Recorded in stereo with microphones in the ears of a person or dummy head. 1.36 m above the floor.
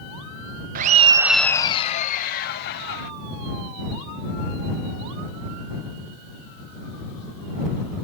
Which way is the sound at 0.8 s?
45° right (ahead or behind).